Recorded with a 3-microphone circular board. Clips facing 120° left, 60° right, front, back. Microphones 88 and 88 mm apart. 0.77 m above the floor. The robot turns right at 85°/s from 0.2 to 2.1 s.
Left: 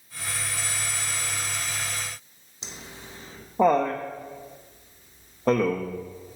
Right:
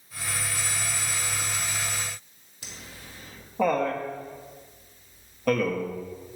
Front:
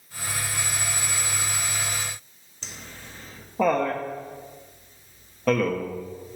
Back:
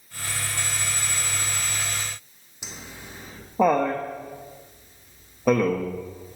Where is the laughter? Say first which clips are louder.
Left 2 dB, back 2 dB; 125° left, 0.5 m.